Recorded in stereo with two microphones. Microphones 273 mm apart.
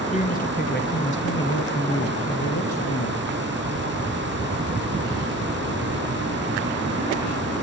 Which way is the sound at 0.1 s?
25° left (ahead or behind).